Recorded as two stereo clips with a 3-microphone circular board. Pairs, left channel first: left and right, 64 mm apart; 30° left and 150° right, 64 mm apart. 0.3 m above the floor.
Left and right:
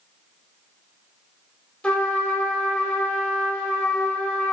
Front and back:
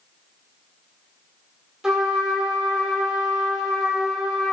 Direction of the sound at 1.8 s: 145° left.